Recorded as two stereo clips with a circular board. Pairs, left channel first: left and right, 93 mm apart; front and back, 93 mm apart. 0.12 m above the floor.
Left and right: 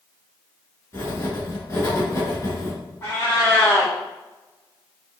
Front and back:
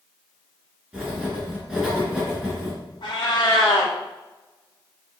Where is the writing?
105° left, 1.9 m.